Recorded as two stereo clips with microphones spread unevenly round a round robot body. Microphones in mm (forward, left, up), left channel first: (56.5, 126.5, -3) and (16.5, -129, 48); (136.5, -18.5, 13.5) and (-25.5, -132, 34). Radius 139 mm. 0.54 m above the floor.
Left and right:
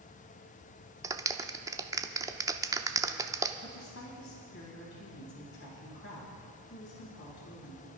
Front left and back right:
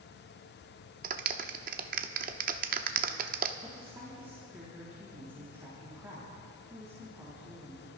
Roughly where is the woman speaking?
Behind left.